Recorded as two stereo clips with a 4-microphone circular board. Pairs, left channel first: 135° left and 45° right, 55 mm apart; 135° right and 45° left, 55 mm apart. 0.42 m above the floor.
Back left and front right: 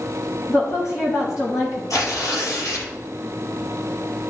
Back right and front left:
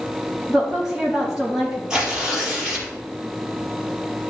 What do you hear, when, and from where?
0.5 s a woman speaking: 130° left, 3 m
1.9 s tearing paper: 120° left, 3 m